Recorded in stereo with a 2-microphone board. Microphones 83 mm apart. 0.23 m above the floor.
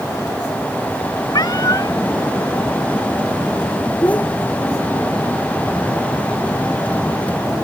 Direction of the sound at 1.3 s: 55° left (ahead or behind).